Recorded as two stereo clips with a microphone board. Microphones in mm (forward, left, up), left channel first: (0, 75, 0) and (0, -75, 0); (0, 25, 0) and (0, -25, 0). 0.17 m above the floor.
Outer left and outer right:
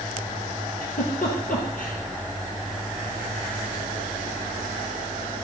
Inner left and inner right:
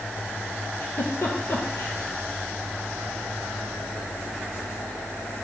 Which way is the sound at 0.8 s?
65° left (ahead or behind).